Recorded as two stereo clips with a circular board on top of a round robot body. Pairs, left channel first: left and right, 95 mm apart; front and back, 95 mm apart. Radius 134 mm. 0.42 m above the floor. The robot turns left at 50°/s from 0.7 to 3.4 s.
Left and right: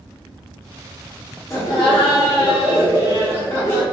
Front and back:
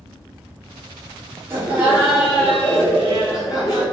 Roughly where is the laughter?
Behind left.